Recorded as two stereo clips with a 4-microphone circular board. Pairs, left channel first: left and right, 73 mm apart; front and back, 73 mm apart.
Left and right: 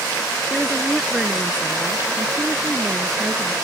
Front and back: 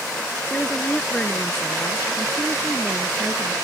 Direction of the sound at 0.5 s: 5° right.